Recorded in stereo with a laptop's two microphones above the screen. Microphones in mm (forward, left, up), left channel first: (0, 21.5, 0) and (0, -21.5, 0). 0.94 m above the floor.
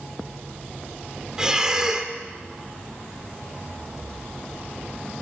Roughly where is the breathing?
Centre.